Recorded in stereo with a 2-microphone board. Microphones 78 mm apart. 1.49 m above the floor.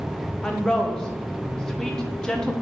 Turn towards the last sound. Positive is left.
turn(degrees=10)  # may be behind; listen again after turning